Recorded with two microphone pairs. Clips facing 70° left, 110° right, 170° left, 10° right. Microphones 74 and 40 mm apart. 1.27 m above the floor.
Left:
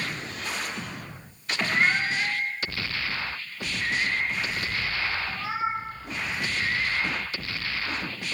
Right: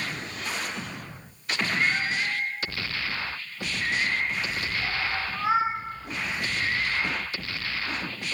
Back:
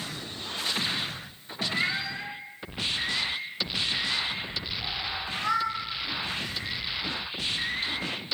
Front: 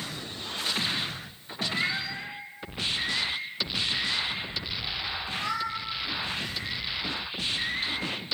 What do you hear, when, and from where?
1.6 s a cat meowing: 85° left, 0.9 m; by 5.8 s 140° right, 2.0 m